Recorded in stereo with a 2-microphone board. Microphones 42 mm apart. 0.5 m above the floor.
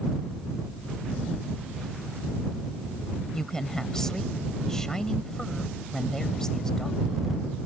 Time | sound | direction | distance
3.3 | a woman speaking | 15° left (ahead or behind) | ?